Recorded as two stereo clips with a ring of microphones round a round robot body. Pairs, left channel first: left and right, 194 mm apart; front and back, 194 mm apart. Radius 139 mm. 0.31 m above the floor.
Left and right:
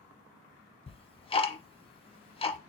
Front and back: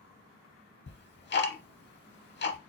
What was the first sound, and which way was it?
Ticking, 30° left.